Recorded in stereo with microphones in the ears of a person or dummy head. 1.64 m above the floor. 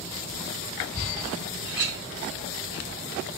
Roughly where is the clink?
Centre.